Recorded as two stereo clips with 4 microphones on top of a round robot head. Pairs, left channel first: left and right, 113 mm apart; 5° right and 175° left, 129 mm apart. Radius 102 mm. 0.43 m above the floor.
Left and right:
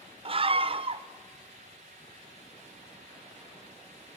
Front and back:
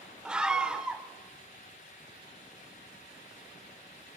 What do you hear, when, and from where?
0.2 s a scream: 105° right, 1.1 m